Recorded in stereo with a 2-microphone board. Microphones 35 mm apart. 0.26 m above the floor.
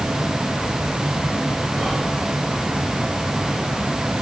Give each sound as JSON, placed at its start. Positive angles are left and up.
{"t": 1.8, "sound": "whispering", "side_deg": 5, "distance_m": 5.5}